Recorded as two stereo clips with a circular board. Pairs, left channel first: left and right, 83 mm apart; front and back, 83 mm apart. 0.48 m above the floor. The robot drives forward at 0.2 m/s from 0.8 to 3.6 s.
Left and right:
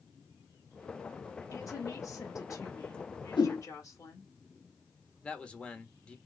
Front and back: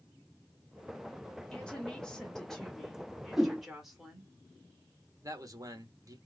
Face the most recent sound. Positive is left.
turn(degrees=160)